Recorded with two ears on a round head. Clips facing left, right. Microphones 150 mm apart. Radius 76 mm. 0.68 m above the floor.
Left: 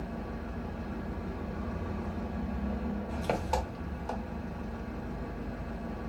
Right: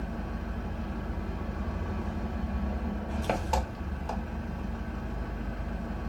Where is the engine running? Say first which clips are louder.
Right 1 dB; centre (ahead or behind), 0.9 m.